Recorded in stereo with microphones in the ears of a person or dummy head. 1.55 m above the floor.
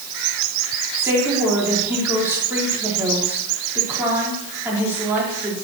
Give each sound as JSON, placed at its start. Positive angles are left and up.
{"t": 1.0, "sound": "a woman speaking", "side_deg": -10, "distance_m": 4.5}